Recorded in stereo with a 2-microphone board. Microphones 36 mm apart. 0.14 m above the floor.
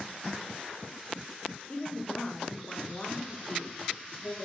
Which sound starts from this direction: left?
A woman speaking, at 1.7 s.